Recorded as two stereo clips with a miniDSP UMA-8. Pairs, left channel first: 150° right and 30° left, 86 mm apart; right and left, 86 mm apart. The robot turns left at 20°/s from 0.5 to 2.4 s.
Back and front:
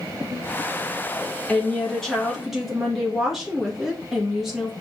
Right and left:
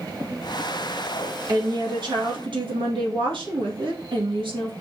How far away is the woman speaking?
About 1.6 m.